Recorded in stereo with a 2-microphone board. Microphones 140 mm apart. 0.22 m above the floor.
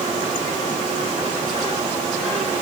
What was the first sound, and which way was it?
Only background noise.